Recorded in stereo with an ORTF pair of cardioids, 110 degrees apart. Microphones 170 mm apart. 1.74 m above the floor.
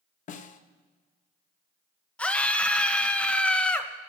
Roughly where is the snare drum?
Ahead left.